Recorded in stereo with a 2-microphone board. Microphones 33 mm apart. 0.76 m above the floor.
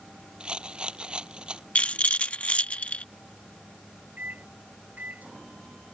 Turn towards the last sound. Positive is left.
turn(degrees=-60)  # may be behind; listen again after turning